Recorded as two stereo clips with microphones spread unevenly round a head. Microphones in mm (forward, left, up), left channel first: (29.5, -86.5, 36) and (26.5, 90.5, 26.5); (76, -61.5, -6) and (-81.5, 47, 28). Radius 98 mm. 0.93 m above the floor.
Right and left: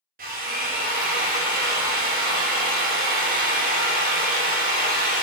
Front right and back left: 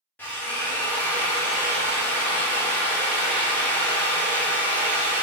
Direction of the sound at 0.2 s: 50° left.